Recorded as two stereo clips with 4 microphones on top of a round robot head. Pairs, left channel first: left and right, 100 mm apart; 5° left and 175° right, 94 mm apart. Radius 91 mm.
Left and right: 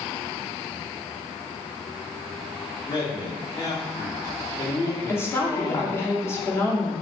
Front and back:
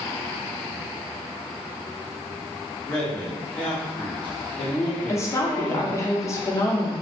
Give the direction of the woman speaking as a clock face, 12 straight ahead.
11 o'clock.